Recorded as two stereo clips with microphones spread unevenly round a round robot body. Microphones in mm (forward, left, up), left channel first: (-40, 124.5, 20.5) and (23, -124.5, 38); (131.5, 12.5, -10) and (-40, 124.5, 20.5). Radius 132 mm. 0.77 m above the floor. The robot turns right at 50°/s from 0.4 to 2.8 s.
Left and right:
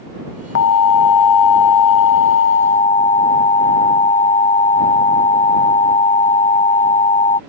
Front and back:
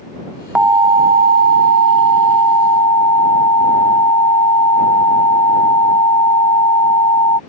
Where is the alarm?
60° left; by 7.4 s 170° left.